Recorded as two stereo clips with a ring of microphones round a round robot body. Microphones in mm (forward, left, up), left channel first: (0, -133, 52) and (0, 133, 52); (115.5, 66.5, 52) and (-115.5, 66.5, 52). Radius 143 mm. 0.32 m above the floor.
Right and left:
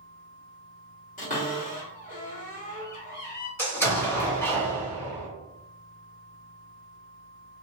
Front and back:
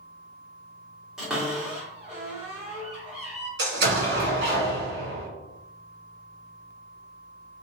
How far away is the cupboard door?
About 1.7 m.